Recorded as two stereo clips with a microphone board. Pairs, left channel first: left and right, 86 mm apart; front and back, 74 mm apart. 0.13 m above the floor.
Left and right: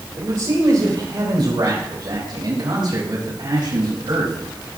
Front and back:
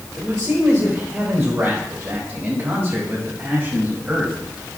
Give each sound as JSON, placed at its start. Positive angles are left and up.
{"t": 0.2, "sound": "a man speaking", "azimuth_deg": -115, "distance_m": 3.5}